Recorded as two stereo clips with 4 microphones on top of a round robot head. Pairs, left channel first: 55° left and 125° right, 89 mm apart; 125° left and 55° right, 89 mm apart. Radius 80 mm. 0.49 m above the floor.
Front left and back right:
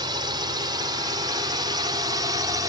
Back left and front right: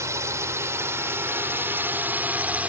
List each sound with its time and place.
0.0 s a drone: 105° right; by 2.7 s 120° right